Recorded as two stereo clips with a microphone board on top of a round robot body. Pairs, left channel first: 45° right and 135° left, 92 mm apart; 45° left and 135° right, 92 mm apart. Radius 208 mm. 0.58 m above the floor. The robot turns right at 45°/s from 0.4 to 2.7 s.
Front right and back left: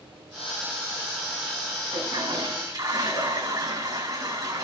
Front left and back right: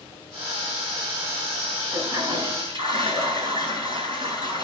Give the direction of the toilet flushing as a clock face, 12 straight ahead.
7 o'clock.